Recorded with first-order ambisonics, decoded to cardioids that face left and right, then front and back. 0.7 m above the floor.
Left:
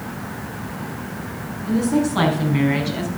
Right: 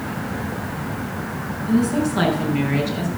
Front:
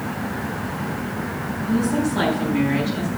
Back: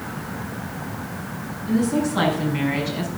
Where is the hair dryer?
No hair dryer in this recording.